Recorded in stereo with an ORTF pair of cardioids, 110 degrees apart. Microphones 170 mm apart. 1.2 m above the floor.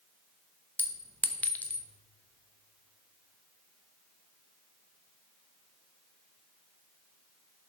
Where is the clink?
10° left, 0.9 m.